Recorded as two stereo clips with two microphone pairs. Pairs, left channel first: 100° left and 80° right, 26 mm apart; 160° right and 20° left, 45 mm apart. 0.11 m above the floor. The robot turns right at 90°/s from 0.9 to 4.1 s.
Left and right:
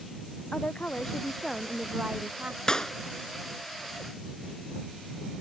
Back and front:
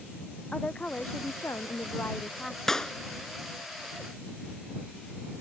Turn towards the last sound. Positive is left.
turn(degrees=-110)